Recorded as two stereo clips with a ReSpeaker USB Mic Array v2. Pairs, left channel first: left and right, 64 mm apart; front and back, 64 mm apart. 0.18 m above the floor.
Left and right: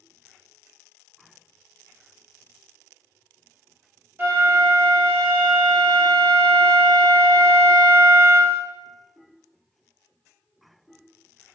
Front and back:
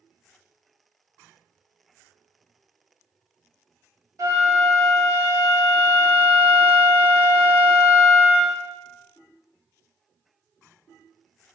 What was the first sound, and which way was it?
A flute, 145° right.